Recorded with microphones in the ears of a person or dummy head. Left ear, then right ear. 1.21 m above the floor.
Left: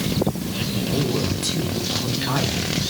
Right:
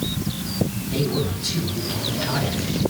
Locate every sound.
0.8 s a man speaking: 30° left (ahead or behind), 8 m